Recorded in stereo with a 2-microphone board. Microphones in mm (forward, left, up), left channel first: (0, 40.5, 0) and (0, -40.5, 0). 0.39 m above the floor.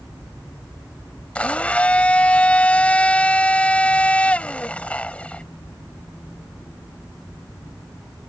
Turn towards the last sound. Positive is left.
turn(degrees=15)  # may be behind; listen again after turning